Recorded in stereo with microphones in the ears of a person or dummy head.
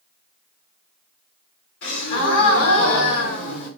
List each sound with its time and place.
1.8 s a gasp: 65° left (ahead or behind), 2 m